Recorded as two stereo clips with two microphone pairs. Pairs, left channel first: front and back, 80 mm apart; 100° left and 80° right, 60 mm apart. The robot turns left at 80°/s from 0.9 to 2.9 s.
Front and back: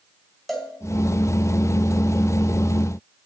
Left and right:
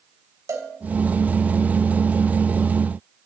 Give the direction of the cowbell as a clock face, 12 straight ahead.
3 o'clock.